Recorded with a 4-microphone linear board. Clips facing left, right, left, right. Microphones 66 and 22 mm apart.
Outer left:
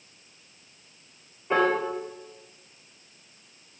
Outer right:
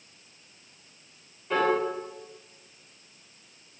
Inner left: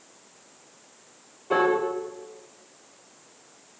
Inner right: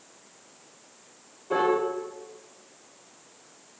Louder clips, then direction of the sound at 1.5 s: Outer left 2 dB, inner left 2 dB; 20° left (ahead or behind).